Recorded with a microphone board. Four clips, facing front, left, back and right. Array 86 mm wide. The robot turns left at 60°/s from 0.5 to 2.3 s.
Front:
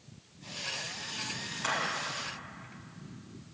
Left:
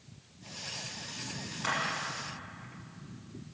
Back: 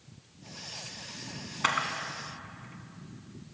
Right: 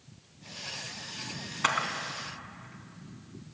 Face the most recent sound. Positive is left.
turn(degrees=-165)